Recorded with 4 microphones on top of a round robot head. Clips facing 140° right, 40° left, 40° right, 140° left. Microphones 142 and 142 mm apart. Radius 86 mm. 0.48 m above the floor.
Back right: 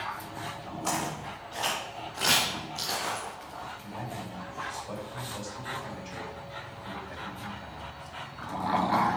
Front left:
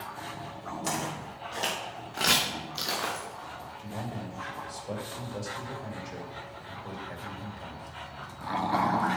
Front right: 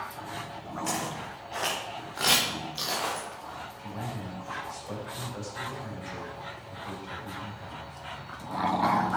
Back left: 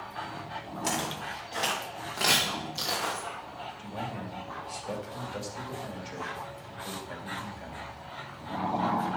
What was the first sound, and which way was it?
Footsteps, 85° left.